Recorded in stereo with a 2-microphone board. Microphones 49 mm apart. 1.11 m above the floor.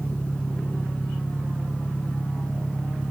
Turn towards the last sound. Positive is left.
turn(degrees=30)  # may be behind; listen again after turning